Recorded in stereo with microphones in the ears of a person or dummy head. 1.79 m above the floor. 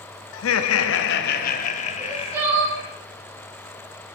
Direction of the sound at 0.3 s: 70° left (ahead or behind).